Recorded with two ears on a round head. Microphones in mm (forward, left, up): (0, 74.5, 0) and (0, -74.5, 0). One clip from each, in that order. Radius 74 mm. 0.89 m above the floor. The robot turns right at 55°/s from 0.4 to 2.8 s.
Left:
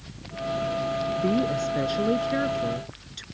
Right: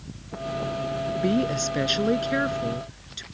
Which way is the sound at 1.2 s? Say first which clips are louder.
Right 2 dB; 100° right.